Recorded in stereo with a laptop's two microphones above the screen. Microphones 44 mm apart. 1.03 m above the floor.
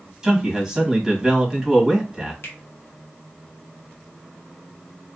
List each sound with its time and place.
0.2 s a man speaking: 10° right (ahead or behind), 1.5 m
2.4 s a finger snap: 60° left (ahead or behind), 0.7 m